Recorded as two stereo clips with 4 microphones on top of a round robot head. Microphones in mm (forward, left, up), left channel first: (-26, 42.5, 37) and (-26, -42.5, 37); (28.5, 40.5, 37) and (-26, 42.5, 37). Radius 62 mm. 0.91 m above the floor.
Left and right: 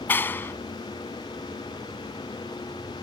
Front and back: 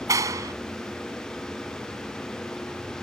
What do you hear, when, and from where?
0.1 s a clap: 160° left